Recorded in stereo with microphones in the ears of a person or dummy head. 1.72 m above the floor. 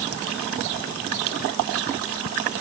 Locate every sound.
Only background noise.